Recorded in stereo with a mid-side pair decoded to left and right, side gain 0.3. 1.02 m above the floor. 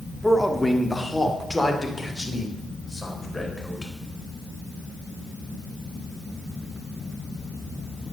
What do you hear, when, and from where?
0.2 s a man speaking: 5° left, 1.9 m; by 3.9 s 25° left, 4 m